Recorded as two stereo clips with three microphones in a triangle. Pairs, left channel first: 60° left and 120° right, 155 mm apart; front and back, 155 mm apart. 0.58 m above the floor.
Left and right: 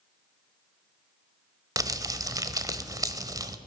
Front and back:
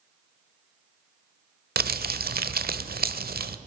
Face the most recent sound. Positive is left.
turn(degrees=175)